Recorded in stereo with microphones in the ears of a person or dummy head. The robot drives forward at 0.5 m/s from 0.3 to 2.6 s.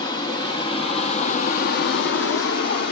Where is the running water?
25° left (ahead or behind), 1.1 m; by 2.9 s 50° left (ahead or behind), 0.6 m.